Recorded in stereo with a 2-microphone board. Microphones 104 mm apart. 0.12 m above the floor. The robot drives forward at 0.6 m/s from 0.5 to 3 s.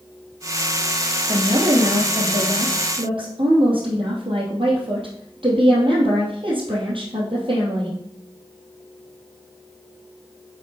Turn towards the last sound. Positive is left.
turn(degrees=-55)  # may be behind; listen again after turning